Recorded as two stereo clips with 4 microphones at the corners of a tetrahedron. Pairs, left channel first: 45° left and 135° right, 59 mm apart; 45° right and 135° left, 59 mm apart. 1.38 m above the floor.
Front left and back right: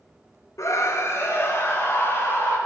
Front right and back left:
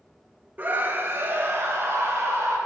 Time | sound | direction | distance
0.6 | a scream | 75° left | 1.3 m